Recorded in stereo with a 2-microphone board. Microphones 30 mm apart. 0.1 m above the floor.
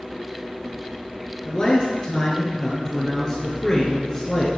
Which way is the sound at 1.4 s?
25° left (ahead or behind).